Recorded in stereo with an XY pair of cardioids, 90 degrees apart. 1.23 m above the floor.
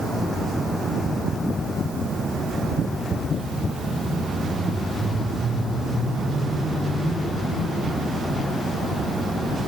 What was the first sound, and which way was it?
Only background noise.